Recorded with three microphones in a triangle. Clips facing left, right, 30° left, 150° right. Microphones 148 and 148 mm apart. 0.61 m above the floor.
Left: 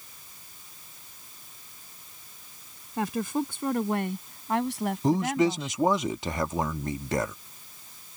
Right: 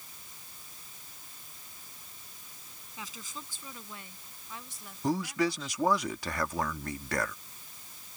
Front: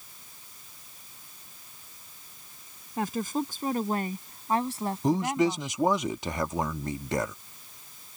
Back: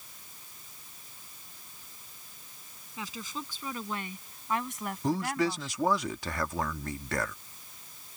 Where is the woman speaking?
65° left; by 5.8 s 105° left.